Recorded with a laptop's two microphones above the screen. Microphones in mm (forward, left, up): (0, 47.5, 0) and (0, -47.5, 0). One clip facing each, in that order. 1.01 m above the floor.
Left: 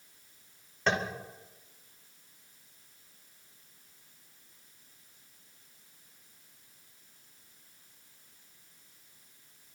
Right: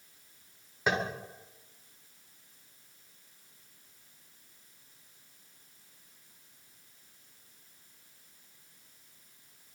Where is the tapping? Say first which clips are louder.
Even; 10° right (ahead or behind), 4 m.